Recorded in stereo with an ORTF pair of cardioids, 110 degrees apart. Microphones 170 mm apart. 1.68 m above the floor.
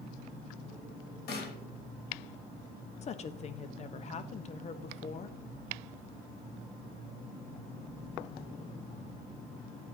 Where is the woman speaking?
40° left, 0.9 m.